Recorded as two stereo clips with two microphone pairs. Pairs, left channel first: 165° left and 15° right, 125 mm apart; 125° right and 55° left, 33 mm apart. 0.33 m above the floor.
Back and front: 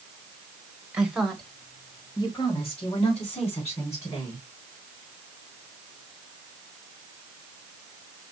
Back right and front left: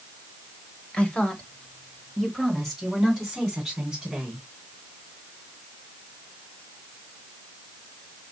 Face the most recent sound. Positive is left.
turn(degrees=135)